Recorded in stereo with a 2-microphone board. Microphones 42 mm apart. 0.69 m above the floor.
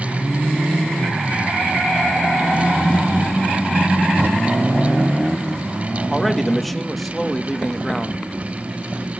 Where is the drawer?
45° right (ahead or behind), 1.8 m.